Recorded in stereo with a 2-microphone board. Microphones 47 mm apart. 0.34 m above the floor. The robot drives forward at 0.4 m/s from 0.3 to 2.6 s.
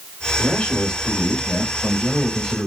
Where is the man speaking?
25° left (ahead or behind), 0.9 m; by 2.7 s 15° left (ahead or behind), 1.3 m.